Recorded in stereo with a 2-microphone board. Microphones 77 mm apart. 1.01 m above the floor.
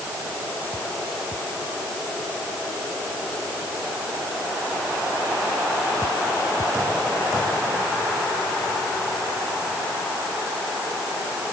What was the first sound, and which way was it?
Only background noise.